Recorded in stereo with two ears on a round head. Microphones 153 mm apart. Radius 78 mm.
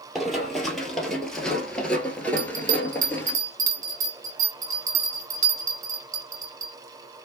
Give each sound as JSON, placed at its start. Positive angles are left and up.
{"t": 0.1, "sound": "running footsteps", "side_deg": 0, "distance_m": 1.7}
{"t": 2.4, "sound": "a bell", "side_deg": -45, "distance_m": 1.3}